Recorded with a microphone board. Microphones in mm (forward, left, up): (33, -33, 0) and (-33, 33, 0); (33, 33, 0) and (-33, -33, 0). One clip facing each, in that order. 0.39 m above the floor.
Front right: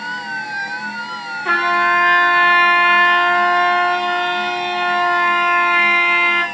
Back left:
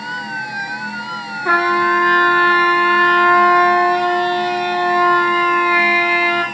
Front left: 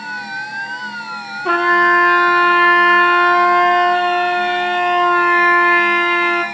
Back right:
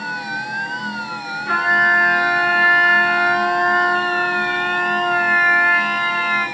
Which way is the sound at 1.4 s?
60° left.